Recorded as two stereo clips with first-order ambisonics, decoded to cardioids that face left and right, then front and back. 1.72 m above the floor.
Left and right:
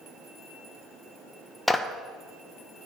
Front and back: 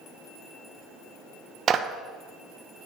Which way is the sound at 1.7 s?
170° left.